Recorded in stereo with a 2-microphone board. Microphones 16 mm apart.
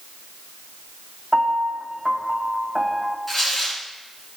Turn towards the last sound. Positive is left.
turn(degrees=10)  # may be behind; listen again after turning